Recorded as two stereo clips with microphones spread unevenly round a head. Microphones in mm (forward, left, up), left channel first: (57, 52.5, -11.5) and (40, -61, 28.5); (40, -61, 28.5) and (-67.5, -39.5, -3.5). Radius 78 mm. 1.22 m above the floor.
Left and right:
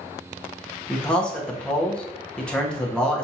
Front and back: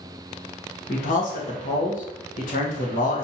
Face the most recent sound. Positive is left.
turn(degrees=5)